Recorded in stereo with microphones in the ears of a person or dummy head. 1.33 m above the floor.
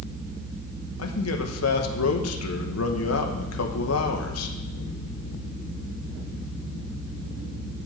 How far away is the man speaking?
About 1.2 m.